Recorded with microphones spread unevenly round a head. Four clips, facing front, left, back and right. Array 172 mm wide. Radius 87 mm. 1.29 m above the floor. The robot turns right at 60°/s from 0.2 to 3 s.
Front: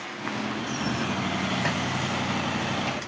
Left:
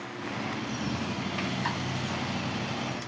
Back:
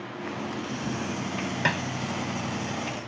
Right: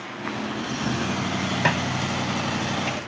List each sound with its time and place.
1.6 s a snare drum: 105° right; by 1.8 s 95° right